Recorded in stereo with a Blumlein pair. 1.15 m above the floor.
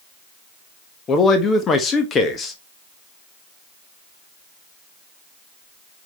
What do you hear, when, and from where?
1.1 s a man speaking: 20° left, 1.5 m